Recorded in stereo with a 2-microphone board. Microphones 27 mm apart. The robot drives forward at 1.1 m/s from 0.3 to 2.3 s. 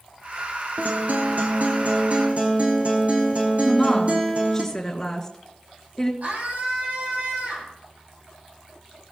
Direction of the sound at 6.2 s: 65° right (ahead or behind).